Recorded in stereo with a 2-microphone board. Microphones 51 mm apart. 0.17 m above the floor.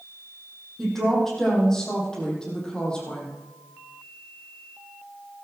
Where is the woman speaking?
10° left (ahead or behind), 7.5 m; by 3.3 s 20° left (ahead or behind), 7.5 m.